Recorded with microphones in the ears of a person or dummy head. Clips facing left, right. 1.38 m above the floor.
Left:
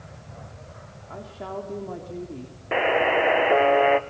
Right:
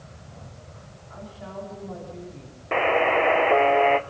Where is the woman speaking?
65° left (ahead or behind), 3.5 m.